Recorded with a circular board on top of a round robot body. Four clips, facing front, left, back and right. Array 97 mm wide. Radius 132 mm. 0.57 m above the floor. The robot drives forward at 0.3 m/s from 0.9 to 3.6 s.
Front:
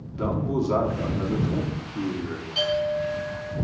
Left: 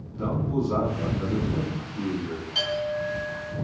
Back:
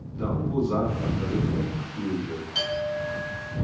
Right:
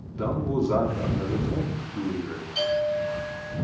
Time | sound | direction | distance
0.1 | a man speaking | 35° right | 1.4 m
2.5 | a clink | 150° left | 1.6 m